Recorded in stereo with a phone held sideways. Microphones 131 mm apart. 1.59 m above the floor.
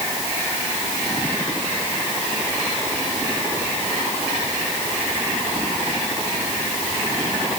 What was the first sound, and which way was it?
Only background noise.